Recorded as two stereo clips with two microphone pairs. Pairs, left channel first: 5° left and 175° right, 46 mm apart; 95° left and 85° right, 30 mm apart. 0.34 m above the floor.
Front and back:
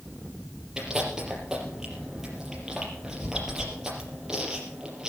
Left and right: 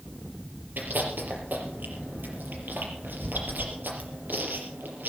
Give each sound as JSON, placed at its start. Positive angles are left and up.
{"t": 0.8, "sound": "chewing", "azimuth_deg": -95, "distance_m": 5.0}